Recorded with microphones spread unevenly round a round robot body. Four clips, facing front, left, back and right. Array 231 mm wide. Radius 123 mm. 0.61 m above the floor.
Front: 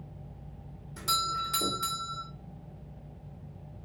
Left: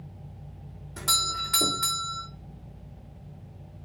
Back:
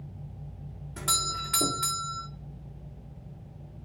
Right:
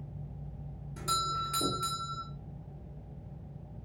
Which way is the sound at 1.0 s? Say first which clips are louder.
Even, front 2 dB; 160° left.